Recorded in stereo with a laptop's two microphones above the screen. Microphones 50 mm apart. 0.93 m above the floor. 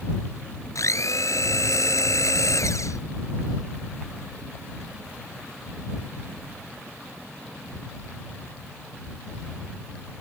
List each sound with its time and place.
0.8 s a blender: 80° left